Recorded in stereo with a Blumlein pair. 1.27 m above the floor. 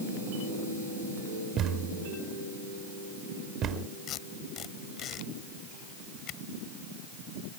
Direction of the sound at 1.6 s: 25° right.